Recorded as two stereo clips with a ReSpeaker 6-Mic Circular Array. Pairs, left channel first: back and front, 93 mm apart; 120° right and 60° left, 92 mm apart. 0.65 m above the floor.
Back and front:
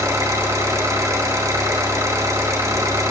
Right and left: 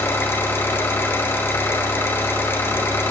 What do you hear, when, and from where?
0.0 s an engine running: 55° right, 2 m